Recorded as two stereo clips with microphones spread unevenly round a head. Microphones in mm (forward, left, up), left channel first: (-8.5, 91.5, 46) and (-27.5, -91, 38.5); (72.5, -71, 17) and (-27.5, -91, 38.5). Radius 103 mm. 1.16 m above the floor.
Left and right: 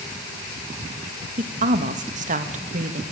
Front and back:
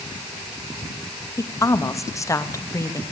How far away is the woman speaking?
About 1.7 m.